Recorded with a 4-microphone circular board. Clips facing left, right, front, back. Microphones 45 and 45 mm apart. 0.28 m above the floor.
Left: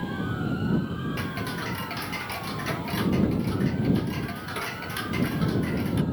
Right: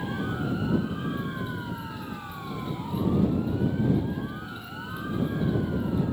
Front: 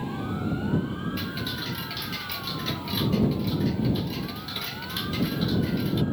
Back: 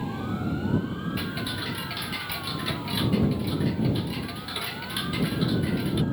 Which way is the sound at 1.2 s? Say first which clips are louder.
Left 2 dB, back 1 dB; 105° left.